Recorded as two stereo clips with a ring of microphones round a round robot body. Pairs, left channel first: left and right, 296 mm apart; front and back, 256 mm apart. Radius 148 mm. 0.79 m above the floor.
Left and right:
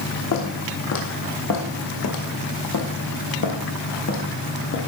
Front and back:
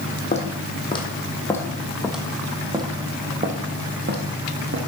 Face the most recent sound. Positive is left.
turn(degrees=145)